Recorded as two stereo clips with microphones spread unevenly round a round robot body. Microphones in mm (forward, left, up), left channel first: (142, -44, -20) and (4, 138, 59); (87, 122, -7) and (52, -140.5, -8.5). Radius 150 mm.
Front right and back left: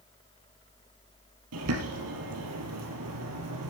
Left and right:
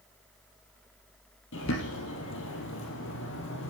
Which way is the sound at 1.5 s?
135° left.